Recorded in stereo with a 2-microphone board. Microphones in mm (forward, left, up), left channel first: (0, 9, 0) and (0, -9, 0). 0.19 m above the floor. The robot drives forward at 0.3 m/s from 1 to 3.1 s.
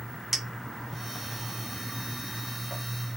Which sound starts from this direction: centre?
A clink, at 0.3 s.